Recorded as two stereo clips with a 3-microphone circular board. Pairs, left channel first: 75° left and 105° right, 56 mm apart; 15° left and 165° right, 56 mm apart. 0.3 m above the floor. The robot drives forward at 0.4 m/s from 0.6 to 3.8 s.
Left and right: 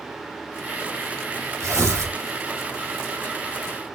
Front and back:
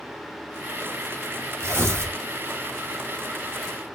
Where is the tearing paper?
125° right, 3.5 m; by 2.2 s 130° right, 3.5 m.